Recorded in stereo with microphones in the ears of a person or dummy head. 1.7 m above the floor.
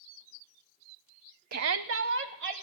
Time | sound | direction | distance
1.5 | a shout | 50° right (ahead or behind) | 0.5 m